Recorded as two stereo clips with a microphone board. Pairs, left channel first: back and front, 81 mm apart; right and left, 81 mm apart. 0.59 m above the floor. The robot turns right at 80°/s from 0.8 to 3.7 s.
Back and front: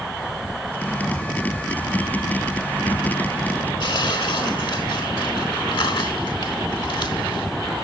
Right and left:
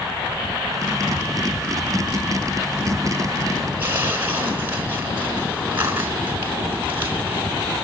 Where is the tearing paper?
155° left, 4 m.